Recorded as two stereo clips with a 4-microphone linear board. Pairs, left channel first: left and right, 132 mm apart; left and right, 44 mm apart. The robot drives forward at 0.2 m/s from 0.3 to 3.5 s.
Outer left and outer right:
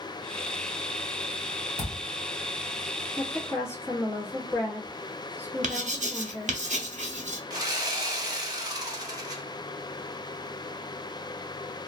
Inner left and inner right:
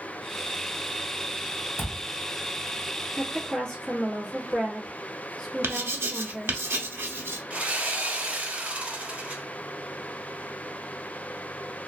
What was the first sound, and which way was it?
A thud, 80° left.